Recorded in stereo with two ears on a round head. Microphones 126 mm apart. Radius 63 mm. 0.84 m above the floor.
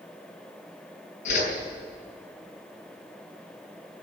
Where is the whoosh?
55° left (ahead or behind), 5.5 m.